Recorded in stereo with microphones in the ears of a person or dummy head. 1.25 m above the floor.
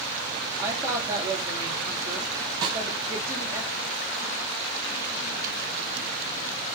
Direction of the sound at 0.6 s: 15° right (ahead or behind).